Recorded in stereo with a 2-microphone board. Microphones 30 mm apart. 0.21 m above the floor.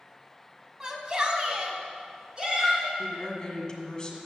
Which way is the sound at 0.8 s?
20° right (ahead or behind).